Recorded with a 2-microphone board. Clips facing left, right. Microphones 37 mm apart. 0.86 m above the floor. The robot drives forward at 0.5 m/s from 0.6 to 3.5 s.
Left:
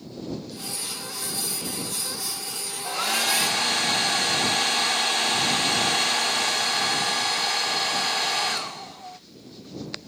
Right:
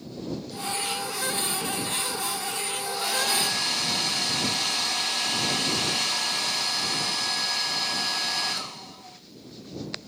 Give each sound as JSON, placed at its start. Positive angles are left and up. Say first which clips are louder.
{"t": 2.8, "sound": "a hair dryer", "louder": "left 4 dB", "side_deg": 75, "distance_m": 0.7}